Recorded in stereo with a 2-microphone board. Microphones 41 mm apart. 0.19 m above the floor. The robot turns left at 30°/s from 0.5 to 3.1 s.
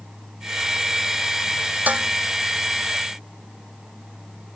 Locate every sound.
1.9 s dishes clattering: 45° right (ahead or behind); by 2.1 s 50° right (ahead or behind)